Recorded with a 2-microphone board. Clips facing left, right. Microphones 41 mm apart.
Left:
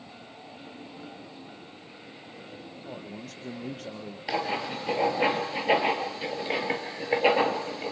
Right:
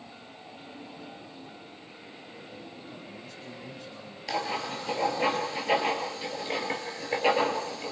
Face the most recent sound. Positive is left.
turn(degrees=15)  # may be behind; listen again after turning